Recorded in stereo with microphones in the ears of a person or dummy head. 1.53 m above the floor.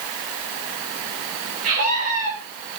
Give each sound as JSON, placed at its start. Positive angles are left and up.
{"t": 1.6, "sound": "a scream", "side_deg": -40, "distance_m": 8.5}